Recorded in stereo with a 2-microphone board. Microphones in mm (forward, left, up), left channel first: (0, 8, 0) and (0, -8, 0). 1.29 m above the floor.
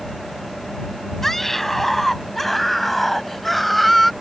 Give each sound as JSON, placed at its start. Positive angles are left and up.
{"t": 1.2, "sound": "a scream", "side_deg": 15}